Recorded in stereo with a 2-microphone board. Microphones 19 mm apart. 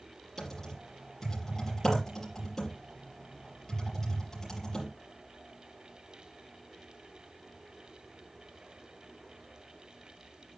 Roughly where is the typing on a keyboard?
Left.